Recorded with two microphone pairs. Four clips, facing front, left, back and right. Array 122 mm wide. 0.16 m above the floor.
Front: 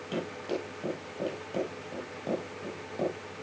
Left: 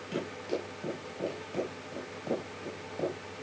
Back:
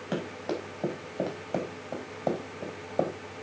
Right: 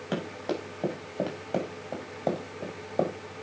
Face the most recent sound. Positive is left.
turn(degrees=-125)